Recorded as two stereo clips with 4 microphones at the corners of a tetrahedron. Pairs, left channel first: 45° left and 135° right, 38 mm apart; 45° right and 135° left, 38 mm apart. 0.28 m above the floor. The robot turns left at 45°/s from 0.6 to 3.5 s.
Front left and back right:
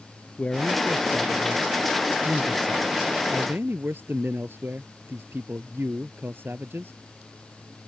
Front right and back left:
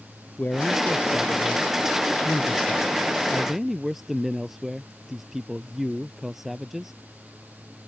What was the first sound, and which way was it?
A man speaking, 15° right.